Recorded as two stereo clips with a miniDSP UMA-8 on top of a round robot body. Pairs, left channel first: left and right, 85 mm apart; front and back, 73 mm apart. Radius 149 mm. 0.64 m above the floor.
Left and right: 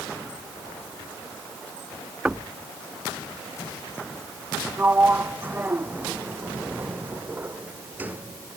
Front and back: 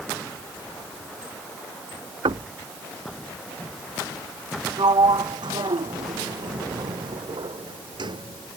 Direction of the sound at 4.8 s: 160° right.